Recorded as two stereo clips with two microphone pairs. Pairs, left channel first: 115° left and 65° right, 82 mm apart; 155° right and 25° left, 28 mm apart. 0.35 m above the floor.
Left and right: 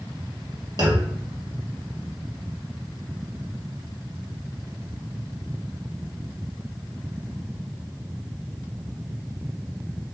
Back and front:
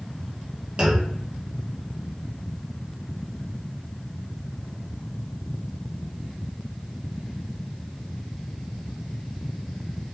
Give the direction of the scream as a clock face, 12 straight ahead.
No scream in this recording.